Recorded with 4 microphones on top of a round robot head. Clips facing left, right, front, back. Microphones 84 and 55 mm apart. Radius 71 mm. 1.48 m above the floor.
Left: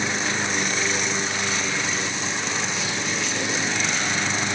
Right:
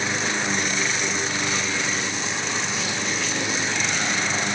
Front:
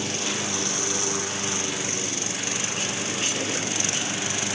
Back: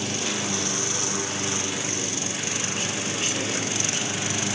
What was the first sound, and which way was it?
Only background noise.